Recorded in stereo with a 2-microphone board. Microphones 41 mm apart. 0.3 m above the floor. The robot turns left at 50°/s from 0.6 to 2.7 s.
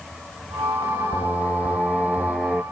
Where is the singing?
70° left; by 2.6 s 5° right.